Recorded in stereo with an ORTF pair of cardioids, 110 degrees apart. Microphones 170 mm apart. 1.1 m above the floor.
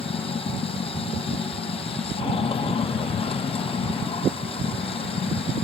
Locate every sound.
0.0 s running water: 35° left